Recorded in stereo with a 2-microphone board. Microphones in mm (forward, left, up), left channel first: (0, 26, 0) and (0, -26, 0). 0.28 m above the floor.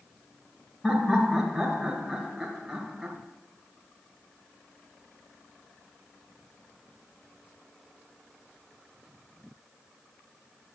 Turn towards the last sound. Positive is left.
turn(degrees=-5)  # may be behind; listen again after turning